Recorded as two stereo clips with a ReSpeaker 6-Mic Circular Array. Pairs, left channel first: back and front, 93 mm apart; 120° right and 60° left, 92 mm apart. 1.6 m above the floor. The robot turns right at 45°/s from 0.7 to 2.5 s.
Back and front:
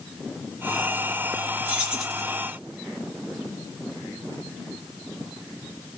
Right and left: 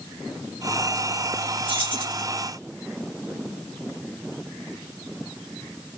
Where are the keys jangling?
70° left, 1.9 m; by 2.2 s 95° left, 1.9 m.